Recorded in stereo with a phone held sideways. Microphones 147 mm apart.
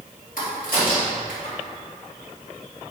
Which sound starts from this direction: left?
A crack, at 0.4 s.